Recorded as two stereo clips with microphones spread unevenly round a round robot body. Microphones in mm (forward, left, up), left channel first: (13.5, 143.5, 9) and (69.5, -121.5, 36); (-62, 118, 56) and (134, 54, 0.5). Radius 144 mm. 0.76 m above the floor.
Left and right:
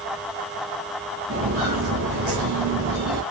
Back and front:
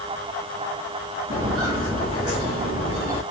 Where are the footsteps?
110° right, 1.1 m; by 3.2 s 95° right, 2 m.